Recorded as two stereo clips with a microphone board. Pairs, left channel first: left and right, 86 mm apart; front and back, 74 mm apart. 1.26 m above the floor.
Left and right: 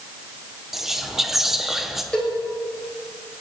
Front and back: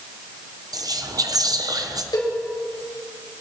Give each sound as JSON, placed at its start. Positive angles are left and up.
{"t": 0.7, "sound": "whispering", "azimuth_deg": -175, "distance_m": 0.9}
{"t": 2.1, "sound": "a cowbell", "azimuth_deg": 10, "distance_m": 3.0}